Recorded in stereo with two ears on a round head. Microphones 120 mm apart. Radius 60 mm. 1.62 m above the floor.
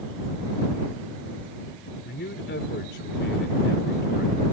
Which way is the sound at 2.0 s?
90° left.